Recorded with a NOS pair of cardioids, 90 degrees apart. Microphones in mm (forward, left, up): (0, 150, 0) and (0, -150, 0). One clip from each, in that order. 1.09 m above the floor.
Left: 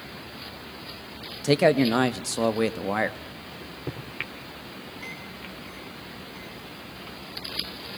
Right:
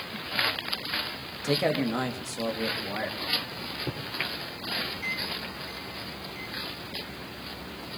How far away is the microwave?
About 3 m.